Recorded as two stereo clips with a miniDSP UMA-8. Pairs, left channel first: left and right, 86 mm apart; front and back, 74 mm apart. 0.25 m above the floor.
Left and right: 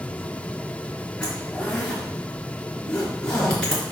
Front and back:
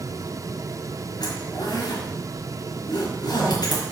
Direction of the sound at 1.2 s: 15° left.